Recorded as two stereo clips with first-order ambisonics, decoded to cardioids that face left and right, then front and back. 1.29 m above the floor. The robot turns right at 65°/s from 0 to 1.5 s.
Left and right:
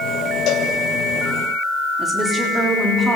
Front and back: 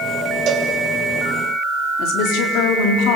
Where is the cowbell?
130° left, 2.5 m; by 0.7 s 145° left, 2.5 m.